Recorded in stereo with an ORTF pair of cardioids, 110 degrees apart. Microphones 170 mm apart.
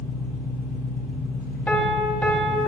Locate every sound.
0.0 s an engine running: 60° left, 2.5 m
1.7 s a piano: 10° left, 2 m